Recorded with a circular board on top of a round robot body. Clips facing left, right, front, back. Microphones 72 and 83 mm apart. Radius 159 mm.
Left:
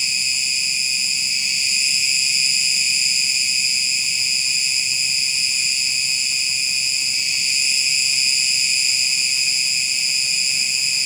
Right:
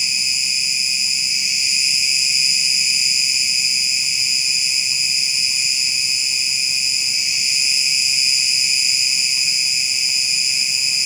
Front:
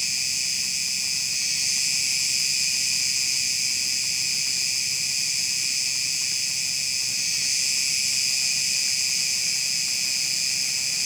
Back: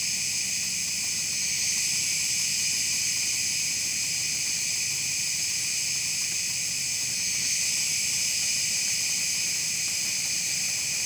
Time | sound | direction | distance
0.0 | an insect | 15° right | 1.9 m